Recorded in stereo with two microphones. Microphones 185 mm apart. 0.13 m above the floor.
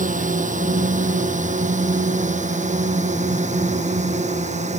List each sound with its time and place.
0.0 s a drone: 40° right (ahead or behind); by 4.8 s 35° right (ahead or behind)